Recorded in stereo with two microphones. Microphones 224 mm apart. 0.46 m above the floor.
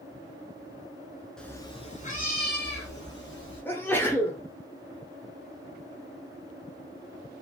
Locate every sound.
1.4 s a cat meowing: 5° left (ahead or behind), 0.5 m; by 3.6 s 60° left (ahead or behind), 1.5 m
3.6 s a sneeze: 10° left (ahead or behind), 0.8 m